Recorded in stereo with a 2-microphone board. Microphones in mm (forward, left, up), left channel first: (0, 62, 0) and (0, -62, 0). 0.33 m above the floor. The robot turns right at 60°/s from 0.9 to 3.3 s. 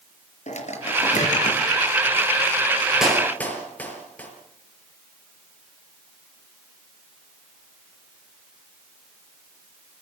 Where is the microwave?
65° left (ahead or behind), 4.5 m; by 1.6 s 70° left (ahead or behind), 4.5 m.